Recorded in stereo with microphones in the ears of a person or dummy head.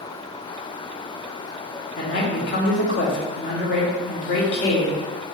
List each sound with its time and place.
2.0 s a man speaking: 55° left (ahead or behind), 1.2 m